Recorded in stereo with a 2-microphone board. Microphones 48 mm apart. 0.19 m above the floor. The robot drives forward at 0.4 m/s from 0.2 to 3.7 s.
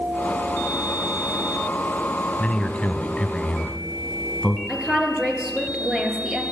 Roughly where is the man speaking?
Left.